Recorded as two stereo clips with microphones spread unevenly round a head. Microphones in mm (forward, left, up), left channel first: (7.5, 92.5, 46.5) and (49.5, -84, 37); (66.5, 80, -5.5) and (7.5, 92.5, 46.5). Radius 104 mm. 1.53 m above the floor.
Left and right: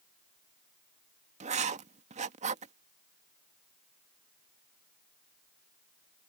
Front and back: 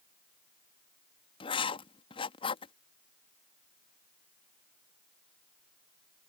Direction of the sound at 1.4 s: 25° right.